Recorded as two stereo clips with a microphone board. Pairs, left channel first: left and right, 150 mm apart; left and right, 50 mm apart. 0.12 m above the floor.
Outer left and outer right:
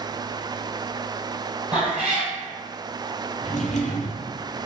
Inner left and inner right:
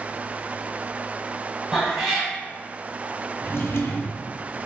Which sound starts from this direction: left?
A drawer, at 3.4 s.